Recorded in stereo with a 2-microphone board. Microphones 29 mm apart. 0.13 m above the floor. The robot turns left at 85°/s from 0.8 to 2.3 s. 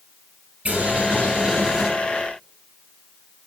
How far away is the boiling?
About 3 m.